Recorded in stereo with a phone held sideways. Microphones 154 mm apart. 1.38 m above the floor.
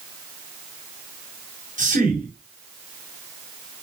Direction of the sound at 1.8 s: 55° right (ahead or behind).